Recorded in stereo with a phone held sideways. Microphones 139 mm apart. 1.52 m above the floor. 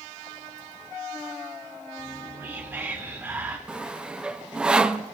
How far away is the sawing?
About 0.6 m.